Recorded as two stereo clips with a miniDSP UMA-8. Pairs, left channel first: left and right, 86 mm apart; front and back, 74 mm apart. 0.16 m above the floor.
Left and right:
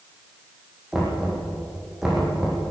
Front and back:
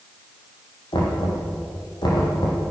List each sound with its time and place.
0.9 s knocking: 5° right, 6.5 m